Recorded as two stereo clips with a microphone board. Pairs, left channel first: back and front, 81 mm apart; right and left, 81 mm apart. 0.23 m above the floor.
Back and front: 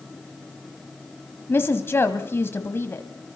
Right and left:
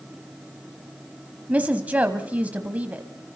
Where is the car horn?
I don't hear a car horn.